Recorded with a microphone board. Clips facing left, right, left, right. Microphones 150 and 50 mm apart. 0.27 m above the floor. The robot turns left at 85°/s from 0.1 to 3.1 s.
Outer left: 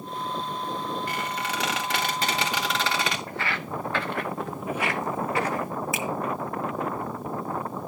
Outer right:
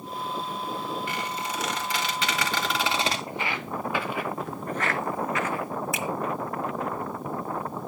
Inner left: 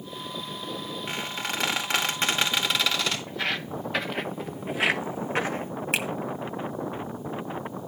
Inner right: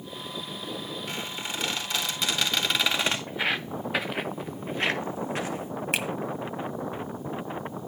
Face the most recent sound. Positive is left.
turn(degrees=0)  # may be behind; listen again after turning